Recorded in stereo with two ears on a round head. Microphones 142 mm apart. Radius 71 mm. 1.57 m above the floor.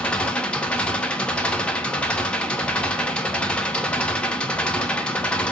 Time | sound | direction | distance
0.0 | an engine running | 5° left (ahead or behind) | 0.8 m